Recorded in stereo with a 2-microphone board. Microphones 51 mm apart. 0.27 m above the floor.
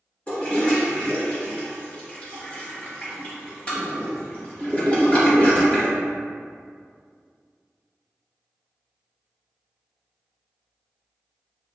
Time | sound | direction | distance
0.3 | a toilet flushing | 25° left (ahead or behind) | 0.8 m